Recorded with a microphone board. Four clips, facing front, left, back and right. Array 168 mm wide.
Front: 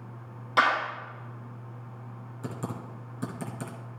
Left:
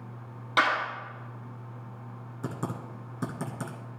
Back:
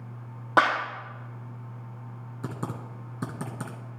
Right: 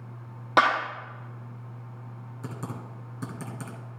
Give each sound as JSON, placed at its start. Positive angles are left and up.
{"t": 0.6, "sound": "a clap", "azimuth_deg": -140, "distance_m": 3.0}
{"t": 2.4, "sound": "typing on a keyboard", "azimuth_deg": 150, "distance_m": 1.6}